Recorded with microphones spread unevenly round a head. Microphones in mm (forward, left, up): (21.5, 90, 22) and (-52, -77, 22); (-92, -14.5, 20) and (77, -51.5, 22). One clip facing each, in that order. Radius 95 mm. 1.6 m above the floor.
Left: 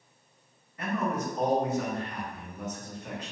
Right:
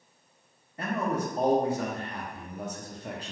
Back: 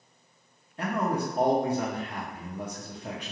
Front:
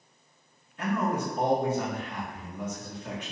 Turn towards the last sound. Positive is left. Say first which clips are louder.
# right 1 dB, even
turn(degrees=-155)